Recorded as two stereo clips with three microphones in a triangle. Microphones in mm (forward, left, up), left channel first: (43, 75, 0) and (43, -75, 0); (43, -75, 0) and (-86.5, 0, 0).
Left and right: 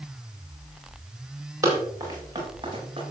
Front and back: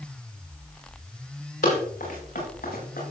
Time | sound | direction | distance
1.6 | running footsteps | 20° right | 6.5 m